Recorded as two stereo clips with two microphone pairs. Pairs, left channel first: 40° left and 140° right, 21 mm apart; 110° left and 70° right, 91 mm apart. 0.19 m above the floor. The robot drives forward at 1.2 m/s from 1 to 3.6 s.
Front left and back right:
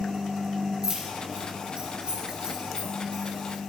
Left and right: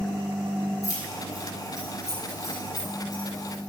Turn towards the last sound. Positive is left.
turn(degrees=175)